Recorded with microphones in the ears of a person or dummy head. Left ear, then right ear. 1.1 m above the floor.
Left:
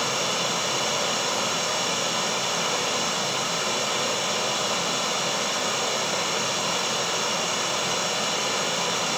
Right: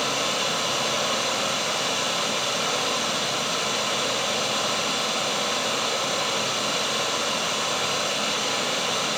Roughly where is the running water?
Centre.